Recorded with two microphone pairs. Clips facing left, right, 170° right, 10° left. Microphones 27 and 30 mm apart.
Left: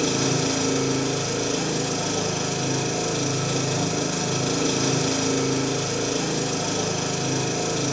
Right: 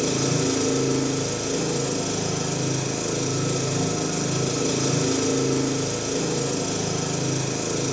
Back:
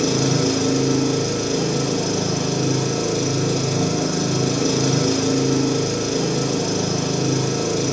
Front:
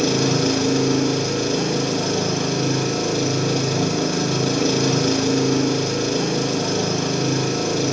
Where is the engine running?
50° left, 0.9 m.